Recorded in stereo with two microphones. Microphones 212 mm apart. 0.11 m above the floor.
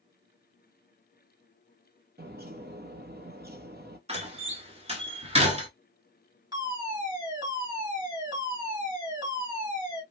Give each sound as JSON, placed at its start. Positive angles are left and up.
{"t": 2.2, "sound": "a bird", "side_deg": -50, "distance_m": 0.8}
{"t": 4.1, "sound": "a door slam", "side_deg": -30, "distance_m": 1.2}
{"t": 6.5, "sound": "a fire alarm", "side_deg": -20, "distance_m": 2.5}